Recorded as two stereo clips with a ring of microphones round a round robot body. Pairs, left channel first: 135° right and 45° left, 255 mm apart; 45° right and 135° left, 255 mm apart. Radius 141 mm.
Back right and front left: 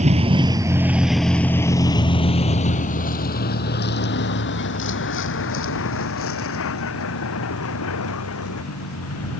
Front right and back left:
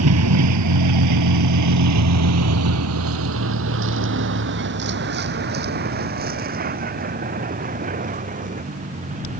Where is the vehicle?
110° left; by 9.4 s 165° right.